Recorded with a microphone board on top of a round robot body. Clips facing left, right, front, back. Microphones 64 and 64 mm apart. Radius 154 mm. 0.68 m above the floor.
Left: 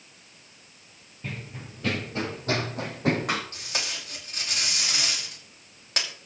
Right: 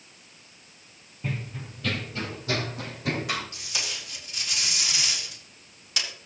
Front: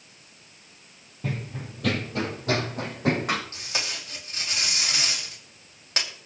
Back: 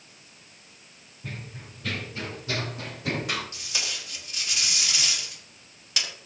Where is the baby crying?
No baby crying in this recording.